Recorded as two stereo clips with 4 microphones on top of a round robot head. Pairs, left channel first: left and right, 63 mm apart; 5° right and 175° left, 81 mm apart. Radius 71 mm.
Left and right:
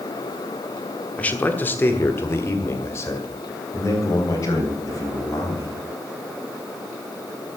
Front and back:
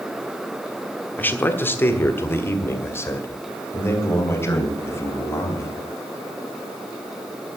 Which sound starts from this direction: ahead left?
A man speaking, at 1.2 s.